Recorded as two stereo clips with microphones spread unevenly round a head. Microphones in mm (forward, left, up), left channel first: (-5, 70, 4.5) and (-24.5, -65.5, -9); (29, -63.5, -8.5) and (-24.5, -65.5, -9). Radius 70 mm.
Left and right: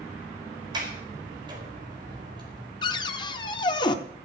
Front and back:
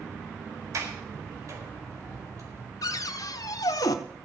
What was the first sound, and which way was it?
A sliding door, 155° right.